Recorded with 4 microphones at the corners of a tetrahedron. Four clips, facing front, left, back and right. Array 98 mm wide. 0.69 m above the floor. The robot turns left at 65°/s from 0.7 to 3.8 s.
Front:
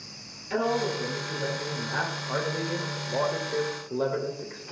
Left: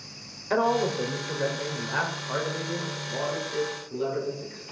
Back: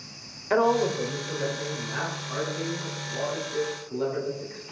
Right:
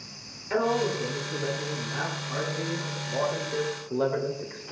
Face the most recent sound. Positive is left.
turn(degrees=-50)